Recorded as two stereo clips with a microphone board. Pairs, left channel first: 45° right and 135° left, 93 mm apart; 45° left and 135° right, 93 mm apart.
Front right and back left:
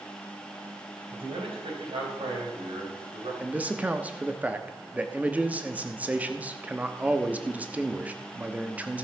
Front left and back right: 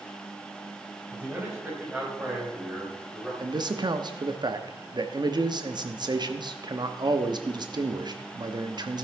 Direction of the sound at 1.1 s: 145° left.